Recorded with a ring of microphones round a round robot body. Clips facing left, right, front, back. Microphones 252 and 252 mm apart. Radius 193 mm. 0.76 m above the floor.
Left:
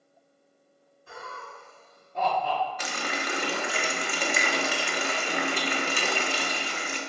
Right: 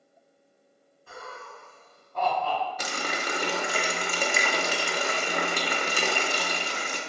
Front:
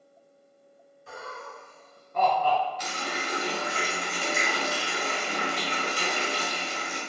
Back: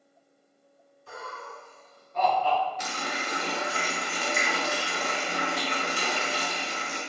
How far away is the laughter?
About 1.5 m.